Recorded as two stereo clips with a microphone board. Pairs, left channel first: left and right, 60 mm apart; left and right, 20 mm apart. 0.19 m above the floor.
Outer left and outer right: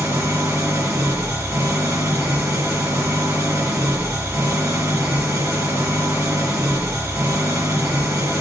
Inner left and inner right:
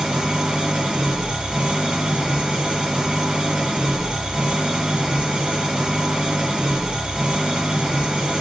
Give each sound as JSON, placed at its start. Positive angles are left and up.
{"t": 0.0, "sound": "an engine running", "side_deg": -60, "distance_m": 2.5}